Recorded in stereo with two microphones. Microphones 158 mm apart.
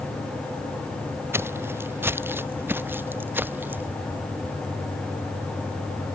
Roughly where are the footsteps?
Centre.